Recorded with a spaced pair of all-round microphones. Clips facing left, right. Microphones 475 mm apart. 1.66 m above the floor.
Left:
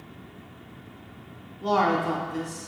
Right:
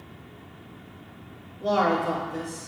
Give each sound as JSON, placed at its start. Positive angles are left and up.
{"t": 1.6, "sound": "a man speaking", "side_deg": 15, "distance_m": 0.6}